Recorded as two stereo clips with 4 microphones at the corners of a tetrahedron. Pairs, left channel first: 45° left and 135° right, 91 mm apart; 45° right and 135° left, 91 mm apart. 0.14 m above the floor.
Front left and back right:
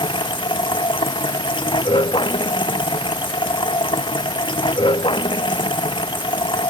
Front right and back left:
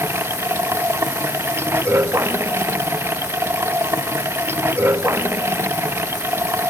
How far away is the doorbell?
No doorbell in this recording.